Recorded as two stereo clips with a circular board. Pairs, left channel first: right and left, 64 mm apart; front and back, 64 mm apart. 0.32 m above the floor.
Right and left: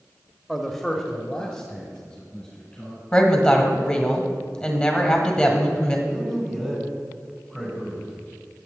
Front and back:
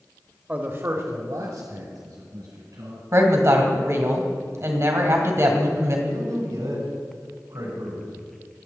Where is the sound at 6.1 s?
175° left, 4 m.